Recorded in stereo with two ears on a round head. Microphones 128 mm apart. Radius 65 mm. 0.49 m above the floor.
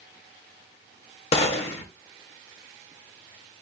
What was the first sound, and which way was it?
A gunshot, 40° left (ahead or behind).